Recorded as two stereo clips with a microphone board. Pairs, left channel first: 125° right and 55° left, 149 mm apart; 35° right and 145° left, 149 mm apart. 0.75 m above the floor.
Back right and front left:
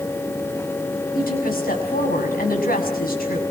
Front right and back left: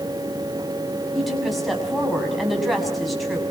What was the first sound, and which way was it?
A woman speaking, 125° right.